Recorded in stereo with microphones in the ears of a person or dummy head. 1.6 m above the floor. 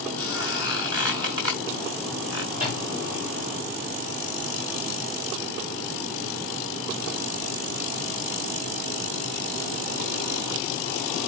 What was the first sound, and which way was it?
A squeak, 20° right (ahead or behind).